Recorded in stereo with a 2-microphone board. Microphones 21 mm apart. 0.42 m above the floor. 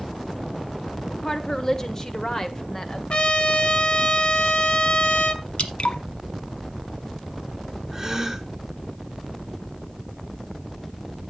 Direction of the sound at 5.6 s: 75° left (ahead or behind).